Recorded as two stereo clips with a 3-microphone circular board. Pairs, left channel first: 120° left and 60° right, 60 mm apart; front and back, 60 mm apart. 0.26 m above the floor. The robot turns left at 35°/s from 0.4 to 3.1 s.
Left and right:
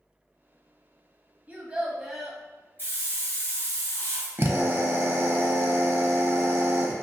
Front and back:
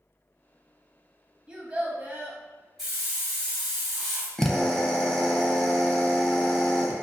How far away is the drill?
About 0.5 m.